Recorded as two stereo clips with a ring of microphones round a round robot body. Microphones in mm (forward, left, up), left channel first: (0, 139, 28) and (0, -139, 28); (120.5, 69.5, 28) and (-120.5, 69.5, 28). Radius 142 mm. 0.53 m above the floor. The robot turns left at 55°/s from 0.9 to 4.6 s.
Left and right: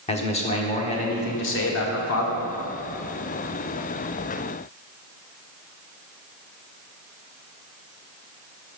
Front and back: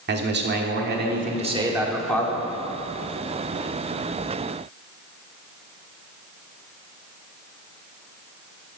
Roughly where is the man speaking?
Behind left.